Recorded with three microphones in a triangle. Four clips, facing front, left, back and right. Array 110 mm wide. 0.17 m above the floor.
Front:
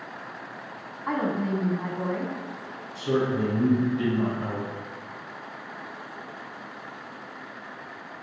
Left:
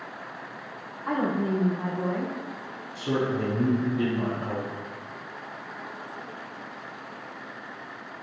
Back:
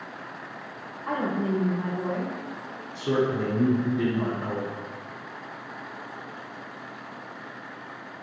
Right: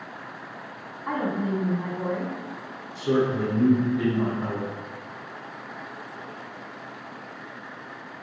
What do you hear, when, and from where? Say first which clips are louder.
1.1 s a woman speaking: left 1 dB, even; 5° right, 1.0 m
3.0 s a man speaking: right 4 dB, even; 150° right, 1.7 m